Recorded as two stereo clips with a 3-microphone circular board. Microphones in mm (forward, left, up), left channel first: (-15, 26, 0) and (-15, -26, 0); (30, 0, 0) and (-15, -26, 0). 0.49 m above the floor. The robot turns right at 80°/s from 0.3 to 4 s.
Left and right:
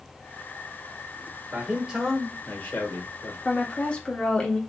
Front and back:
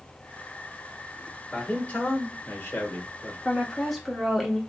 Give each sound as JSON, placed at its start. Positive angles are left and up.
{"t": 1.5, "sound": "a man speaking", "azimuth_deg": -45, "distance_m": 1.6}
{"t": 3.5, "sound": "a woman speaking", "azimuth_deg": 80, "distance_m": 1.0}